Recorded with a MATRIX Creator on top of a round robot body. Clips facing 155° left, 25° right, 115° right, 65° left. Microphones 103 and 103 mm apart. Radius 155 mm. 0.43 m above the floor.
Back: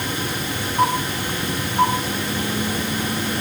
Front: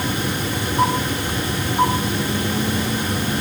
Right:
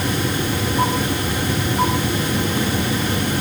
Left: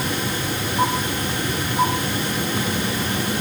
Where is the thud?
I don't hear a thud.